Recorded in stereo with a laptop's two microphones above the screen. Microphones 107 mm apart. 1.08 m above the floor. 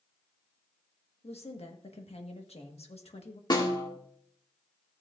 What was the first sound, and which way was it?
A woman speaking, 70° left (ahead or behind).